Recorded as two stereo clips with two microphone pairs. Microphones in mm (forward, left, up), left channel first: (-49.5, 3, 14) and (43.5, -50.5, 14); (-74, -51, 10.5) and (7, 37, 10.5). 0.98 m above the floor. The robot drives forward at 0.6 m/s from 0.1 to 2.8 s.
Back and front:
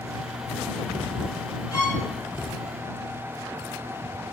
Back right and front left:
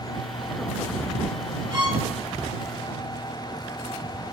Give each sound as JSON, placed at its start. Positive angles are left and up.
{"t": 1.7, "sound": "a violin", "azimuth_deg": 95, "distance_m": 3.5}